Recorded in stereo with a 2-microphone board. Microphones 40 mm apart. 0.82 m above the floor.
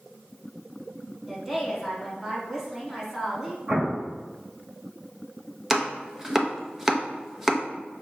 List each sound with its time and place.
1.3 s a woman speaking: 10° right (ahead or behind), 1.6 m
3.7 s an explosion: 35° right (ahead or behind), 1.2 m
5.7 s chopping: 10° right (ahead or behind), 0.6 m